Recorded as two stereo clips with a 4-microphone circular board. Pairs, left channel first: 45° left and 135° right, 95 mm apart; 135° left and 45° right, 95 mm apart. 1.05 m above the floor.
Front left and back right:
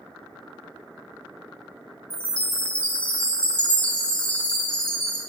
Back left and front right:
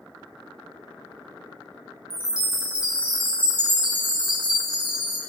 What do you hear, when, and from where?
2.1 s a chime: 30° right, 1.3 m